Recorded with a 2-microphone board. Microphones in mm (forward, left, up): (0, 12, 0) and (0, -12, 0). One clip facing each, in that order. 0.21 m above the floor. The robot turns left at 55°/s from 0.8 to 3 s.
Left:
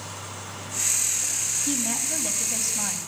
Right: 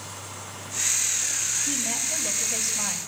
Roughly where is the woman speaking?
Left.